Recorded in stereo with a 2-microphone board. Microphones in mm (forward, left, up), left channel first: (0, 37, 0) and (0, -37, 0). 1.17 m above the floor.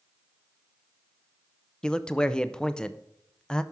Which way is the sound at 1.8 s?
10° left (ahead or behind).